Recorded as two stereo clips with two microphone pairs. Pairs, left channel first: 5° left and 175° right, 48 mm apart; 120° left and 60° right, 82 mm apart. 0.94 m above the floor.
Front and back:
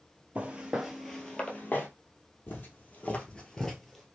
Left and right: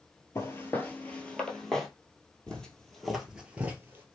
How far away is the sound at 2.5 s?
About 1.4 m.